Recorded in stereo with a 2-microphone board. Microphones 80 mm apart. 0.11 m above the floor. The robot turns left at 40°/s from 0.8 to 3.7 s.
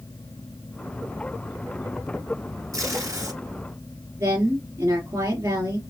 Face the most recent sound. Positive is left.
turn(degrees=-40)  # may be behind; listen again after turning